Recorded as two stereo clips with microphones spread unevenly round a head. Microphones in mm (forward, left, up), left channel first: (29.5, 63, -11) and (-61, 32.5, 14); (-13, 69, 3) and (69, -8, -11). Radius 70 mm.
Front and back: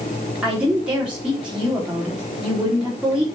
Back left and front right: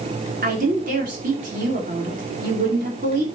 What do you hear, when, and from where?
0.4 s a woman speaking: 80° right, 3.5 m